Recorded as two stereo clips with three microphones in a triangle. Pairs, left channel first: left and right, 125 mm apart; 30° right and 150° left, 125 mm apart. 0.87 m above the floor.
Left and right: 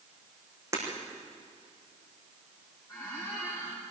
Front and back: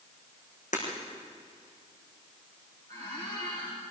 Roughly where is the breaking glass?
Ahead right.